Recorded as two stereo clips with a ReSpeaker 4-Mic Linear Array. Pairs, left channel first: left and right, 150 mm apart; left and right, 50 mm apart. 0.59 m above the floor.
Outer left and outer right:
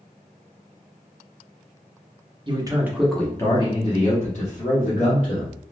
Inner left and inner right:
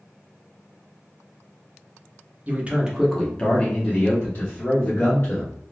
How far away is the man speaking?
About 0.7 m.